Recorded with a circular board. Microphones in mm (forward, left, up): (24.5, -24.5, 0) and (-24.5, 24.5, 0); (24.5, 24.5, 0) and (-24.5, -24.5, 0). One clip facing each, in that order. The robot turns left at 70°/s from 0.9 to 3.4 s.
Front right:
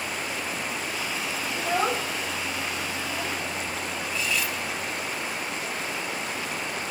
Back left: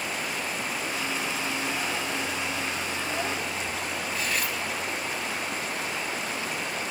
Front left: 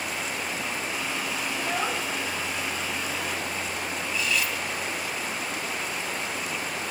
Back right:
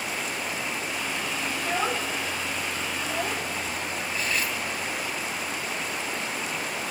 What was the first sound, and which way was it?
A child speaking, 35° right.